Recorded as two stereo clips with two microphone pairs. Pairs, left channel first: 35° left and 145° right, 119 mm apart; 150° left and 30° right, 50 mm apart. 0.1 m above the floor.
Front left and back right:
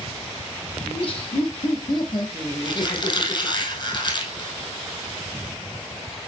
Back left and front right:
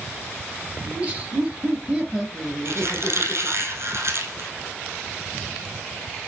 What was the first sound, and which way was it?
Laughter, 25° left.